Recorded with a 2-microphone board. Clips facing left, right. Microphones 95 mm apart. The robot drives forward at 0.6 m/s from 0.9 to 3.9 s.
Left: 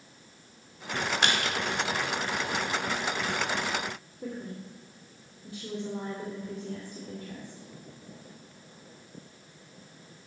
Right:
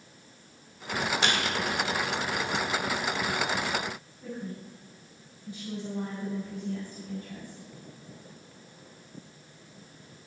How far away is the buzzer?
I don't hear a buzzer.